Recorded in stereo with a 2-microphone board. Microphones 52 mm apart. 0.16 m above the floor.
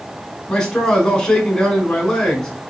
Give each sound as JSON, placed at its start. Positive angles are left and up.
{"t": 0.5, "sound": "a man speaking", "side_deg": 15, "distance_m": 1.2}